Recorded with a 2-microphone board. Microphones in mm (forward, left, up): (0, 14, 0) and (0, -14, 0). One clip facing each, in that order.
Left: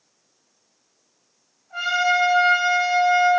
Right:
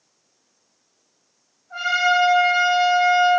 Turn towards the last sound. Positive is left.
turn(degrees=-25)  # may be behind; listen again after turning